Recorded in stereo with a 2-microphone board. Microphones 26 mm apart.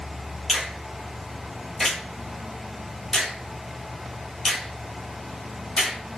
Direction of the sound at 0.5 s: Centre (ahead or behind).